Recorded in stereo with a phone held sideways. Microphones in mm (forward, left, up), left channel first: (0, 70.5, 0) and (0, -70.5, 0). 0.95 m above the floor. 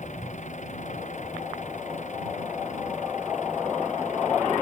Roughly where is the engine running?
Left.